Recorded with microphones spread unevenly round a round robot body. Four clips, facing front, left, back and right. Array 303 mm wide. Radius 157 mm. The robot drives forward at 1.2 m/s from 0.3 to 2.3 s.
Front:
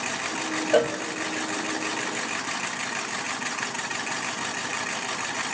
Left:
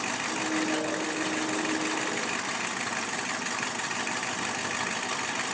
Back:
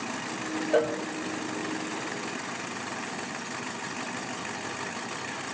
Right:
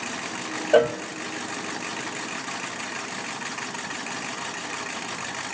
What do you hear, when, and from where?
0.7 s a cowbell: 65° right, 0.7 m; by 1.0 s 85° right, 0.7 m